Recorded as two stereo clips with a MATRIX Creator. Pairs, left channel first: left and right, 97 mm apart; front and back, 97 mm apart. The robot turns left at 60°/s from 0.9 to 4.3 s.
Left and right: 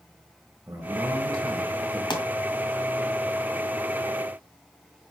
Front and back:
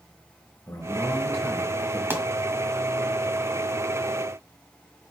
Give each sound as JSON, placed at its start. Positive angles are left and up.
{"t": 0.7, "sound": "a man speaking", "azimuth_deg": -35, "distance_m": 1.6}
{"t": 2.1, "sound": "a pop", "azimuth_deg": 115, "distance_m": 1.5}